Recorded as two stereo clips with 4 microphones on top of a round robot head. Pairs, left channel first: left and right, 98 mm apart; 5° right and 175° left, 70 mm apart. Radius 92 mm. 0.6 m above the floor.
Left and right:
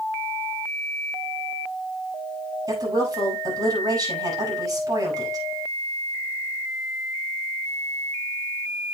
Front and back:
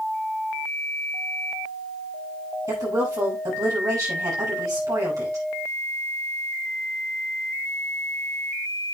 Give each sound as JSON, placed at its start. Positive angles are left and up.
{"t": 2.7, "sound": "a woman speaking", "azimuth_deg": -140, "distance_m": 6.0}